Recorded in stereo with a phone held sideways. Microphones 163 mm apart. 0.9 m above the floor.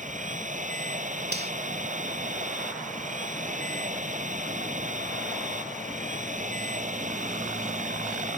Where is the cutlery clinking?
85° right.